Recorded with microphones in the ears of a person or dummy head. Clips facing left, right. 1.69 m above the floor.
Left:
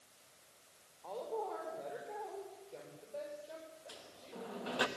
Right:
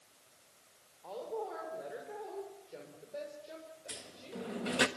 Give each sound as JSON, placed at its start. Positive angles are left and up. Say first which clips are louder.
{"t": 1.0, "sound": "a woman speaking", "louder": "right 1 dB", "side_deg": -5, "distance_m": 5.0}
{"t": 3.9, "sound": "a sliding door", "louder": "right 5 dB", "side_deg": -35, "distance_m": 1.3}